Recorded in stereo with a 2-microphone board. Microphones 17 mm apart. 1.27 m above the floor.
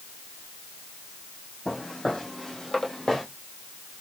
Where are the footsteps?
60° left (ahead or behind), 2.5 m; by 3.2 s 35° left (ahead or behind), 1.6 m.